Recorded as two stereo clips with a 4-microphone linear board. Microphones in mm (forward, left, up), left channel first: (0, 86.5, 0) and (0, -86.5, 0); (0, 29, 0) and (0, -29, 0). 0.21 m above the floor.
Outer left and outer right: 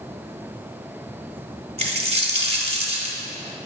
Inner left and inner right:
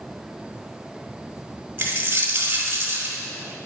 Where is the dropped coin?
35° right (ahead or behind), 1.4 m.